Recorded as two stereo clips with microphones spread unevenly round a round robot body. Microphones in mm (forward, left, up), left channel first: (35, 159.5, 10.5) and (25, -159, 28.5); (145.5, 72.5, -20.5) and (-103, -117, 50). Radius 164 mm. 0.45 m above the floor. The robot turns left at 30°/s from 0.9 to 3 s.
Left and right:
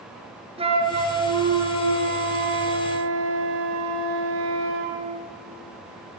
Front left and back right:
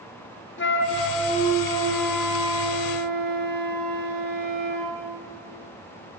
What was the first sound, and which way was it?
A flute, 20° right.